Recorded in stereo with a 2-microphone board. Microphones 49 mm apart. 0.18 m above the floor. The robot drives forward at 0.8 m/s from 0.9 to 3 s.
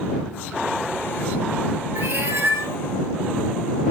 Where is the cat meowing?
60° right (ahead or behind), 2 m; by 2.8 s 70° right (ahead or behind), 1.8 m.